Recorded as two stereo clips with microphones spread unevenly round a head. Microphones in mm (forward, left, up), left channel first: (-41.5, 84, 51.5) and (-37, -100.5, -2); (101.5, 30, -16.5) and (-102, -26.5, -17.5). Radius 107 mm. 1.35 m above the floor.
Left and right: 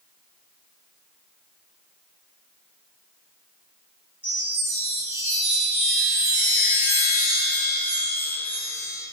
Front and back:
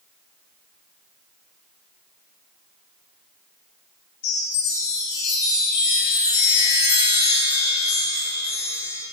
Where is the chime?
10° left, 4.5 m.